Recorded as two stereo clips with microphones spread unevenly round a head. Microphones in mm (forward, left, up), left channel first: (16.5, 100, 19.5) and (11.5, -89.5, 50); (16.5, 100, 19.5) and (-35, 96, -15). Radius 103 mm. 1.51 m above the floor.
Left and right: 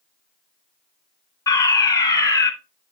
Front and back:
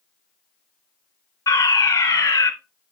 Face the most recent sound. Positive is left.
turn(degrees=25)